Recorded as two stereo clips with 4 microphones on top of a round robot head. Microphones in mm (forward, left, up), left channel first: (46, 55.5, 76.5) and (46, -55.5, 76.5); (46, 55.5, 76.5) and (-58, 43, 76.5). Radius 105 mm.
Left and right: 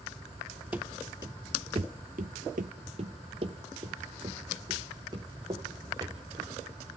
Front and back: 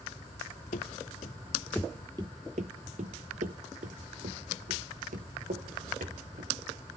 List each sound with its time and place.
0.7 s running footsteps: 15° right, 0.8 m; by 6.5 s 155° right, 3 m